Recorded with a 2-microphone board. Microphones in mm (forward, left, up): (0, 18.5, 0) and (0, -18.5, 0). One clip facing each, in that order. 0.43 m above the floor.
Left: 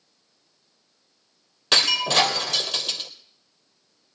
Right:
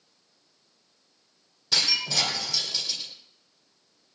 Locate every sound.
1.7 s breaking glass: 70° left (ahead or behind), 2.5 m